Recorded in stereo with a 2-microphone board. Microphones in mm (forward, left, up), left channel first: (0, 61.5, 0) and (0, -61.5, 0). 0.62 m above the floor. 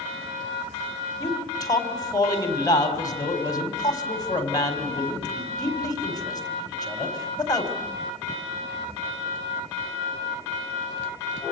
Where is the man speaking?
30° left (ahead or behind), 4.5 m.